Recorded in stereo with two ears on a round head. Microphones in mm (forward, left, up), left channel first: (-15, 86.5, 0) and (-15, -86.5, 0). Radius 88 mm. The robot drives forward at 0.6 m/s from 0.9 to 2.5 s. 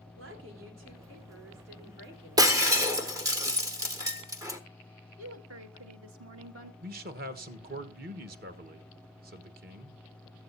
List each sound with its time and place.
0.2 s a woman speaking: 80° right, 3.5 m; by 2.8 s 65° right (ahead or behind), 4 m
2.4 s breaking glass: 20° right (ahead or behind), 1.2 m
5.2 s a woman speaking: 75° right (ahead or behind), 2 m
6.8 s a man speaking: 50° right (ahead or behind), 1.2 m